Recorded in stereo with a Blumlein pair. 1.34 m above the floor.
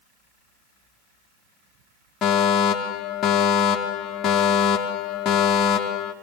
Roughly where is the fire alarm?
Ahead left.